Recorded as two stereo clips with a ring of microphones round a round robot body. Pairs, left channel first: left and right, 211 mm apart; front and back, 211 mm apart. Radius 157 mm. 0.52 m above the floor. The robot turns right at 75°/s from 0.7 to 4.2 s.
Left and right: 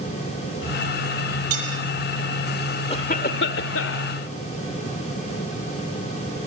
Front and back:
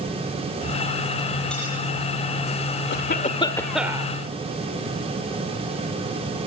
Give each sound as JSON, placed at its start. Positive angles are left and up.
{"t": 1.5, "sound": "cutlery clinking", "azimuth_deg": -90, "distance_m": 9.0}
{"t": 2.9, "sound": "a cough", "azimuth_deg": 25, "distance_m": 1.5}